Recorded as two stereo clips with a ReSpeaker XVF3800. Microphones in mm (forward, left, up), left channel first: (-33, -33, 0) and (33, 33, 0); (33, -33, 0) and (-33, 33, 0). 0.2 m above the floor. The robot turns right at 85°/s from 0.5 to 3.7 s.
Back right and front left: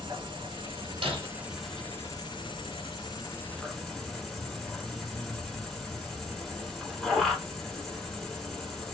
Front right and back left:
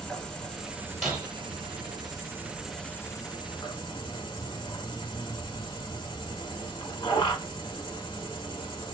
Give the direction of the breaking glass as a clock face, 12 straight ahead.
10 o'clock.